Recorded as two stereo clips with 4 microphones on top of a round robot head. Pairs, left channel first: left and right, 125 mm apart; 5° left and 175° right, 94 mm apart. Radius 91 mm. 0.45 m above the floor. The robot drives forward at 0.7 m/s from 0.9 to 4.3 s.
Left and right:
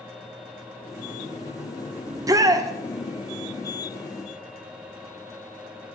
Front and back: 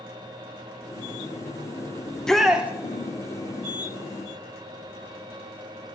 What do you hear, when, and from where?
2.1 s a shout: 50° right, 0.8 m; by 2.7 s 120° right, 0.8 m